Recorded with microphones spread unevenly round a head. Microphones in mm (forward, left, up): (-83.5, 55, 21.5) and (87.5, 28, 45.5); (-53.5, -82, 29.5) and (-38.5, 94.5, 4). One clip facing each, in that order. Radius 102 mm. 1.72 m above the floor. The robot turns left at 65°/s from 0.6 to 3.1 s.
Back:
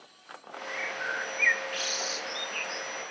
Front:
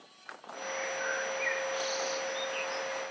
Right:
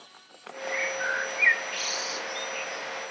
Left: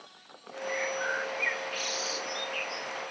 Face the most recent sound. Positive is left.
turn(degrees=100)